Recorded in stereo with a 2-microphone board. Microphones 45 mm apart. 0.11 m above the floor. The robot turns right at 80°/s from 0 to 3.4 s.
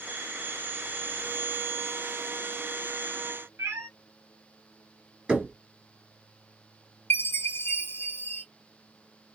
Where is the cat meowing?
85° right, 0.7 m.